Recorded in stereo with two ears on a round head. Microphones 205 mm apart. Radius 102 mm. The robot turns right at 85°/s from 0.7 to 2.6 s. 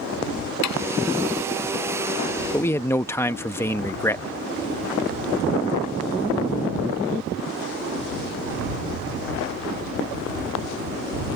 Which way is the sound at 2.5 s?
5° left (ahead or behind).